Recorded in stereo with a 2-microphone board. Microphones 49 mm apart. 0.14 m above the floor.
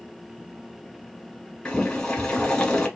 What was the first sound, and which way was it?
Boiling, 15° left (ahead or behind).